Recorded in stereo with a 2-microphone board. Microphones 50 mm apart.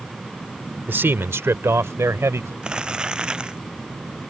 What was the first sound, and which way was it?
A man speaking, 45° right (ahead or behind).